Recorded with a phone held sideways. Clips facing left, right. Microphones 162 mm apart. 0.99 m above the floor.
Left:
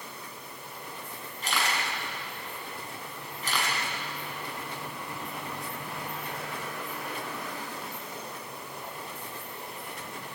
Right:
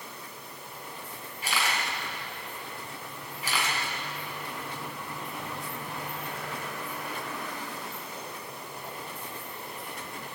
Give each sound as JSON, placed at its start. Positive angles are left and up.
{"t": 1.4, "sound": "a camera shutter", "side_deg": -10, "distance_m": 6.5}